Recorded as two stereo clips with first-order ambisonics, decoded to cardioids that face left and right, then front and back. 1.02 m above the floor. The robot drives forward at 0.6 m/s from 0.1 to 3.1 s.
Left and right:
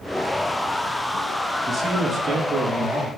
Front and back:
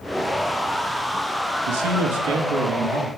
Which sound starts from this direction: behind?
A man speaking, at 1.7 s.